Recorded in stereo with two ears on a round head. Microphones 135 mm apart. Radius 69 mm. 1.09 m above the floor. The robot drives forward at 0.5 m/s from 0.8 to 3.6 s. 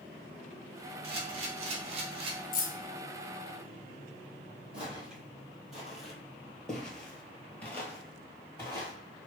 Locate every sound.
1.0 s a camera shutter: 40° right (ahead or behind), 0.8 m
2.5 s keys jangling: 60° left (ahead or behind), 0.8 m; by 2.7 s 55° left (ahead or behind), 0.9 m
4.7 s footsteps: 5° right (ahead or behind), 1.9 m; by 8.9 s 20° left (ahead or behind), 1.3 m